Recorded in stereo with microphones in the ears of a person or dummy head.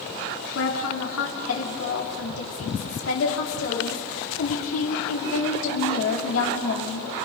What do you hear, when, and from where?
0.6 s a woman speaking: 80° left, 3 m